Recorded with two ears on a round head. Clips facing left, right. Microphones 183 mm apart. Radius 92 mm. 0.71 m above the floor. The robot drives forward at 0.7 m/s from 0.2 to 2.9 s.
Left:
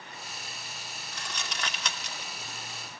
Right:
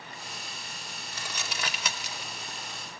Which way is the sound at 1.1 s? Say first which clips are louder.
Right 1 dB; 5° right (ahead or behind).